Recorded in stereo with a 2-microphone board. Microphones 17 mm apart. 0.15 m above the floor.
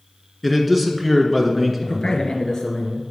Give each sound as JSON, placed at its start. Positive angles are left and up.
{"t": 0.4, "sound": "a man speaking", "side_deg": 0, "distance_m": 1.6}
{"t": 1.8, "sound": "a man speaking", "side_deg": 45, "distance_m": 2.0}